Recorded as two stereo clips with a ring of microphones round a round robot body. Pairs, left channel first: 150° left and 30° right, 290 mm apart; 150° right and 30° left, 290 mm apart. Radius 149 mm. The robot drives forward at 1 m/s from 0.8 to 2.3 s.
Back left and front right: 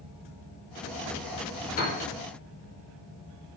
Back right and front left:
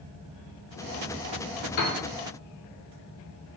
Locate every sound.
1.8 s a piano: 150° right, 0.7 m; by 2.0 s 155° right, 0.9 m